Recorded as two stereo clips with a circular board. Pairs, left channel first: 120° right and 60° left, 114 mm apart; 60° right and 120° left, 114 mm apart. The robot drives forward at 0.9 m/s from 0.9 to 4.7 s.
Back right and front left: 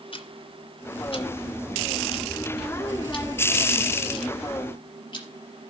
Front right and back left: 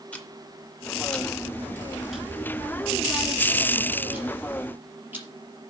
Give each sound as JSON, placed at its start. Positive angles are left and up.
{"t": 0.1, "sound": "ticking", "azimuth_deg": -135, "distance_m": 2.0}